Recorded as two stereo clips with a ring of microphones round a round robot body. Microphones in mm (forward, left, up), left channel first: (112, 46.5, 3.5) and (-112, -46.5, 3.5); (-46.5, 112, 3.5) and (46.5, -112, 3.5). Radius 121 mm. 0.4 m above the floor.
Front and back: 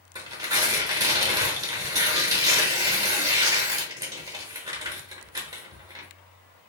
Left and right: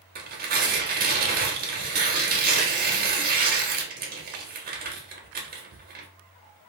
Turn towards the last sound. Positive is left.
turn(degrees=-90)